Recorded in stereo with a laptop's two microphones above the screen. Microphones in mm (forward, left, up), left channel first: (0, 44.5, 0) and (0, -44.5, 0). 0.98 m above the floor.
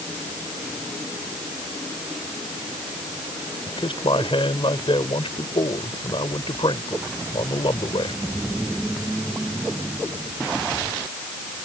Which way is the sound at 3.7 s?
75° left (ahead or behind).